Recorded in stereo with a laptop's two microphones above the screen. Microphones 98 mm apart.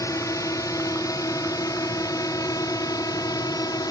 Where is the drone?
35° left (ahead or behind); by 3.9 s 40° left (ahead or behind).